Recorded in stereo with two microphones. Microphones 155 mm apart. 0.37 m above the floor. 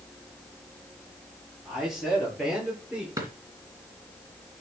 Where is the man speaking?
Centre (ahead or behind), 7 m; by 3.1 s 5° right (ahead or behind), 6.5 m.